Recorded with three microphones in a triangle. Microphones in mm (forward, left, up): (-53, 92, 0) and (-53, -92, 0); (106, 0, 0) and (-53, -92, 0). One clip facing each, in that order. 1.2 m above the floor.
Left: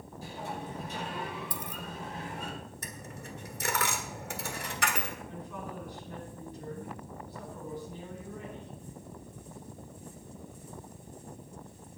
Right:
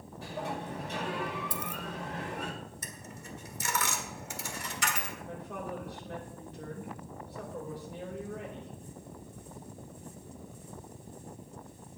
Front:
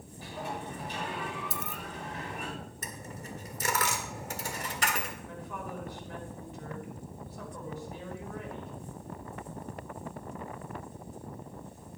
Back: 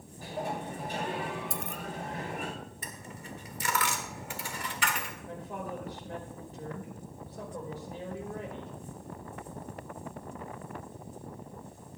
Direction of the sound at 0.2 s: 110° right.